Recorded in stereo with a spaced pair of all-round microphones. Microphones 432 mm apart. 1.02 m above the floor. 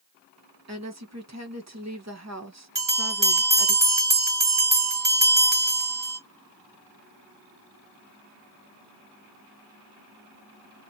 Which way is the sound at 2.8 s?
45° right (ahead or behind).